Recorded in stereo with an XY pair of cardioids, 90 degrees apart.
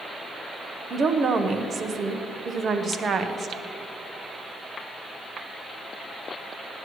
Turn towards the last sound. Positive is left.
turn(degrees=-50)